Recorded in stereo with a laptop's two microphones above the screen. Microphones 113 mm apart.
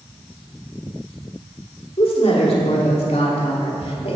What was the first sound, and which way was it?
A woman speaking, 60° left (ahead or behind).